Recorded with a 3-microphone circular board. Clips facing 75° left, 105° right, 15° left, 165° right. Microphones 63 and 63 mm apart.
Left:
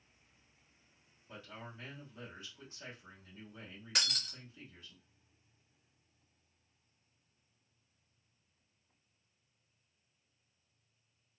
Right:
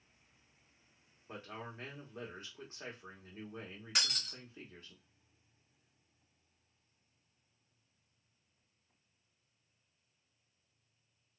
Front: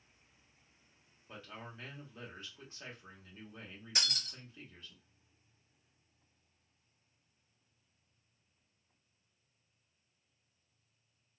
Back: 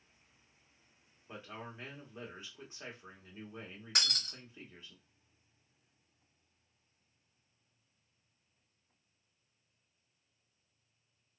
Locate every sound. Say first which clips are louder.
1.3 s a man speaking: right 3 dB, back 2 dB; 100° right, 1.3 m
4.0 s breaking glass: even, back 2 dB; 165° left, 1.7 m